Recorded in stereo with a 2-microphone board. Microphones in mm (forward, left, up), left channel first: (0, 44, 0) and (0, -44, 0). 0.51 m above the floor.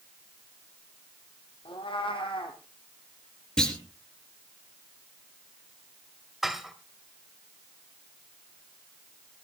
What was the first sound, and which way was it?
A cat meowing, 75° left (ahead or behind).